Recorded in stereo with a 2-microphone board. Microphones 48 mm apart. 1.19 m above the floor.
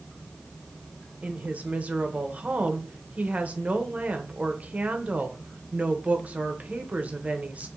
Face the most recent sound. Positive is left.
turn(degrees=-30)  # may be behind; listen again after turning